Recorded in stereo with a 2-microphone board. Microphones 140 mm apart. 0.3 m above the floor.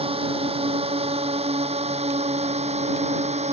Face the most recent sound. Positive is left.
turn(degrees=-50)  # may be behind; listen again after turning